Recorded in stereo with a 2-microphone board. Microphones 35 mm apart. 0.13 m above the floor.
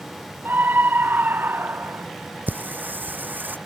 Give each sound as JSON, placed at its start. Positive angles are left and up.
{"t": 0.5, "sound": "a scream", "side_deg": -75}
{"t": 2.5, "sound": "singing", "side_deg": -75}